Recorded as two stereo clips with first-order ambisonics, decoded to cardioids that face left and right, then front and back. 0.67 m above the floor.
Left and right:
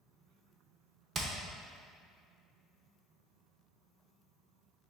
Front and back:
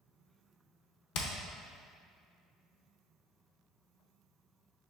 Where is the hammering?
20° right, 0.6 m.